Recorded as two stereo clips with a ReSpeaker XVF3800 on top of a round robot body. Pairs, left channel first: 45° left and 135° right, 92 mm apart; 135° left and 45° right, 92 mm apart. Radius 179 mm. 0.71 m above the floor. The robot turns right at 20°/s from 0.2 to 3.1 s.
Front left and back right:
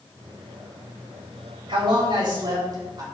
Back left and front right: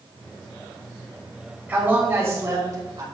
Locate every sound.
1.7 s a man speaking: 120° right, 3 m; by 3.0 s 90° right, 3 m